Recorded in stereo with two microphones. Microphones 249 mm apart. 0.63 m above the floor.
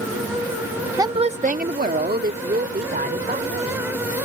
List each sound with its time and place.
1.0 s a woman speaking: 10° right (ahead or behind); by 3.8 s 35° right (ahead or behind)